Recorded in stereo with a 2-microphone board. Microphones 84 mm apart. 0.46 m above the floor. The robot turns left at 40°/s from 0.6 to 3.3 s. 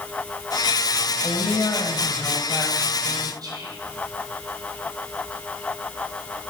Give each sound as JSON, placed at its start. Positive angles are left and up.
{"t": 1.2, "sound": "a woman speaking", "azimuth_deg": 75, "distance_m": 2.5}
{"t": 3.4, "sound": "whispering", "side_deg": -50, "distance_m": 2.5}